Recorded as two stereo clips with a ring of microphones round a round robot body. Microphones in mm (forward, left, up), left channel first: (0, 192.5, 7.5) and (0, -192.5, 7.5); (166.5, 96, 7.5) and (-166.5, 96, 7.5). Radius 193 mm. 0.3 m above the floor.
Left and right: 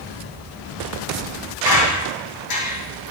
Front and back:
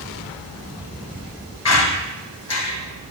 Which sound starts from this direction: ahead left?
A squeak, at 1.6 s.